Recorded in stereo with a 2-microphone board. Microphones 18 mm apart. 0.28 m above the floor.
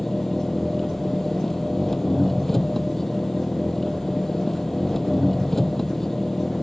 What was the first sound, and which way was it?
An engine running, 10° left (ahead or behind).